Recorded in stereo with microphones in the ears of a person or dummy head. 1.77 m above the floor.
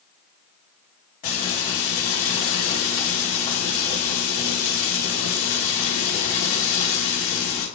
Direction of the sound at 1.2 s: 40° left (ahead or behind).